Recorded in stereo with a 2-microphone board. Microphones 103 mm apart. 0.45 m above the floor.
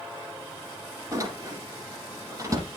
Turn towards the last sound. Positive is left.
turn(degrees=-30)  # may be behind; listen again after turning